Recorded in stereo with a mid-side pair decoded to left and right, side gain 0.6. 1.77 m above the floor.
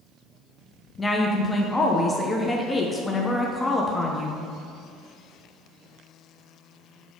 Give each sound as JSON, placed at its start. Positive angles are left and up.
{"t": 1.0, "sound": "a woman speaking", "azimuth_deg": 15, "distance_m": 0.8}